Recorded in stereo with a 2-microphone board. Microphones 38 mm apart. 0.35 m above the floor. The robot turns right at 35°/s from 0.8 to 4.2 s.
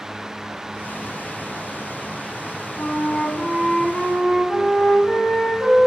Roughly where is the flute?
Left.